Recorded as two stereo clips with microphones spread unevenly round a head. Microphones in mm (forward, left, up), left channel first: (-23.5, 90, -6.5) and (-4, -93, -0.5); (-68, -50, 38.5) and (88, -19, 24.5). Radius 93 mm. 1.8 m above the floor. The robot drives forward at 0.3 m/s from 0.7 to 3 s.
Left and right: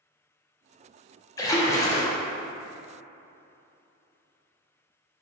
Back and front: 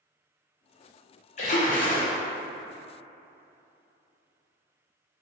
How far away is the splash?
About 0.7 m.